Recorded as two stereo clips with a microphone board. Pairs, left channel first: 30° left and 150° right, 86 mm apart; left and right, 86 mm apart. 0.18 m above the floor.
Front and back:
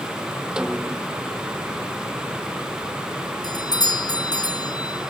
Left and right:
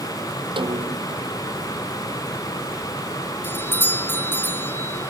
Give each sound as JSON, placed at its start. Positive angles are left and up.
{"t": 0.6, "sound": "a snare drum", "azimuth_deg": -70}
{"t": 3.4, "sound": "a doorbell", "azimuth_deg": 30}